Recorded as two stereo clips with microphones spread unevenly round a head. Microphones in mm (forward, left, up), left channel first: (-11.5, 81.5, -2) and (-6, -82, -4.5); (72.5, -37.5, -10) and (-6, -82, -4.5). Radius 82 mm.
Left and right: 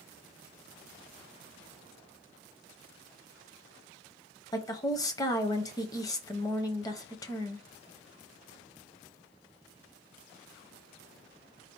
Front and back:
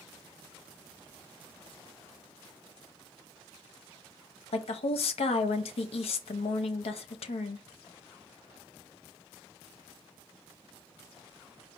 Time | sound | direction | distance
4.5 | a woman speaking | 20° left | 0.9 m